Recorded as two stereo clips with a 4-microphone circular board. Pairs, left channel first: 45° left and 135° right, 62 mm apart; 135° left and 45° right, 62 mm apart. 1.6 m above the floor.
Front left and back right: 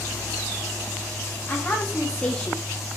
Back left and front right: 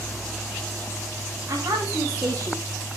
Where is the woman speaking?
10° right, 3.5 m; by 2.6 s 20° right, 3 m.